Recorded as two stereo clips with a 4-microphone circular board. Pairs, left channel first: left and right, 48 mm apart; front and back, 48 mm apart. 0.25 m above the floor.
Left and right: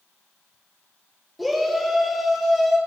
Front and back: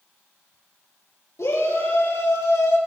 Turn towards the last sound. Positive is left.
turn(degrees=0)